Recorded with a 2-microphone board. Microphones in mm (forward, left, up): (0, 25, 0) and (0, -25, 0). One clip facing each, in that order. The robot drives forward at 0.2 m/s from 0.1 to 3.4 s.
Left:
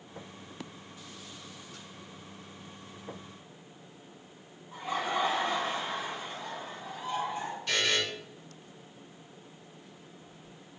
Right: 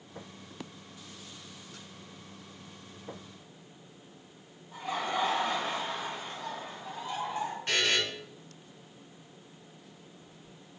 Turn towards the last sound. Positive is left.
turn(degrees=-40)  # may be behind; listen again after turning